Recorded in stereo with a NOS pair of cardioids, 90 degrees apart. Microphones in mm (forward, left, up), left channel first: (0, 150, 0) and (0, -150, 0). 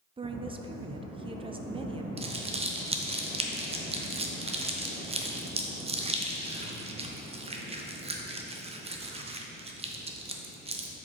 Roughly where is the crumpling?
Ahead.